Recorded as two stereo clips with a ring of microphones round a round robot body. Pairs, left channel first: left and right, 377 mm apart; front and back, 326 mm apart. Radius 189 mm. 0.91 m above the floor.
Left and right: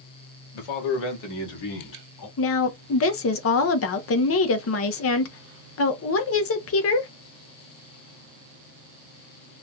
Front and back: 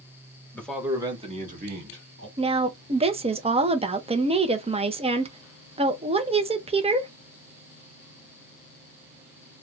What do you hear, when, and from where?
0.5 s a man speaking: 85° left, 1.4 m; by 2.3 s 125° left, 2.5 m
2.4 s a woman speaking: 115° left, 0.7 m